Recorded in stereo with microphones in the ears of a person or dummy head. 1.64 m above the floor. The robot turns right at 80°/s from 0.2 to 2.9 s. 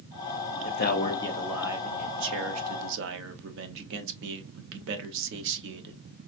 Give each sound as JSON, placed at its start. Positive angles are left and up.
{"t": 0.6, "sound": "a man speaking", "azimuth_deg": 115, "distance_m": 0.9}